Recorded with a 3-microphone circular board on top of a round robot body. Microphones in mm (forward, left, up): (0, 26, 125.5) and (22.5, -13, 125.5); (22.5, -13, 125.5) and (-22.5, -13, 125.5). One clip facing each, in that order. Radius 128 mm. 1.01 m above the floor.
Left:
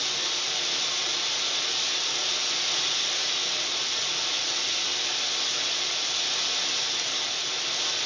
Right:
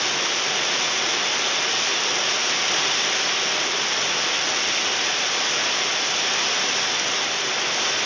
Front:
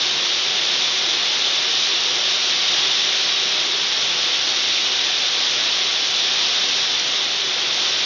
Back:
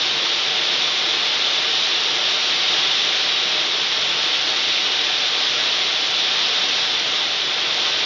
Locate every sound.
0.0 s running water: 95° right, 0.7 m